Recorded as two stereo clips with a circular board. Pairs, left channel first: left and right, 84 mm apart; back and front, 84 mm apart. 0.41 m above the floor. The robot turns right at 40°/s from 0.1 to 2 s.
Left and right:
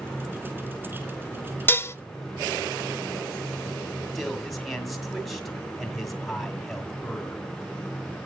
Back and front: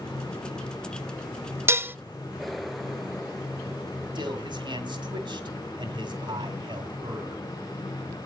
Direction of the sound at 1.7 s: 40° left.